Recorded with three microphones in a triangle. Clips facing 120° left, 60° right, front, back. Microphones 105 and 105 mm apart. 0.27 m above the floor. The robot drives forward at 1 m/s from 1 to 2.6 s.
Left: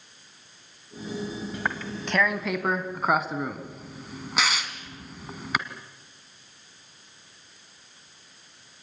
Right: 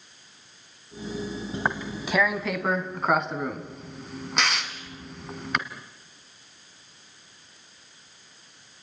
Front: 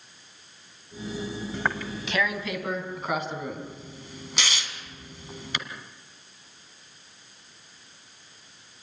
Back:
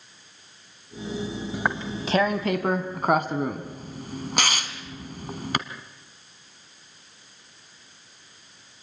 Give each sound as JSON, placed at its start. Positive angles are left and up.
{"t": 1.5, "sound": "tearing paper", "azimuth_deg": -105, "distance_m": 1.0}